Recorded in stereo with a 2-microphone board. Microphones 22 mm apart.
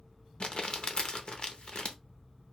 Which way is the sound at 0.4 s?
50° left (ahead or behind).